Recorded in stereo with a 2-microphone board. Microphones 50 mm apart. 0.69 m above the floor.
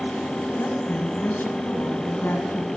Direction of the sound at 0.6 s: 50° left (ahead or behind).